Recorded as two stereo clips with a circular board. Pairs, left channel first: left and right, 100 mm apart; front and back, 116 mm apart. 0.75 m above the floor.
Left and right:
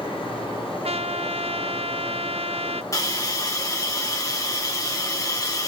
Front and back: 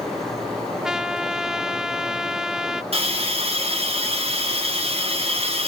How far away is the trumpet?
About 0.5 m.